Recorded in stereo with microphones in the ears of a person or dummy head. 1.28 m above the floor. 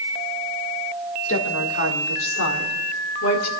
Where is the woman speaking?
80° left, 2.5 m; by 3.5 s 75° left (ahead or behind), 3 m.